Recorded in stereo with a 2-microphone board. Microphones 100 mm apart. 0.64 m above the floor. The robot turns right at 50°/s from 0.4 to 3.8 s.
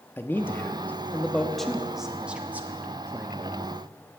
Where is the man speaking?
25° left (ahead or behind), 1.0 m; by 3.8 s 25° right (ahead or behind), 1.0 m.